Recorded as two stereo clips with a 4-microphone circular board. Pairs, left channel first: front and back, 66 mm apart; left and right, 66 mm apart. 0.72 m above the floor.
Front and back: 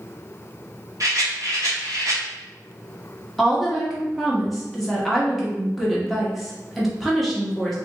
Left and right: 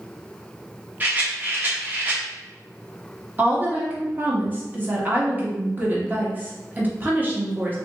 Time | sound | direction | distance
1.0 | a rattle | 155° right | 1.0 m
3.4 | a woman speaking | 90° right | 0.9 m